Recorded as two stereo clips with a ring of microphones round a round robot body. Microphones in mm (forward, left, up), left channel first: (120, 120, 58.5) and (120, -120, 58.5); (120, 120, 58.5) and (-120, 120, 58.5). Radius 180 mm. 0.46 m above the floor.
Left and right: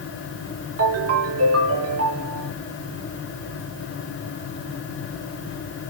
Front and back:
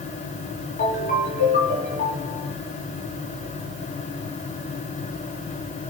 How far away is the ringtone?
About 3.5 m.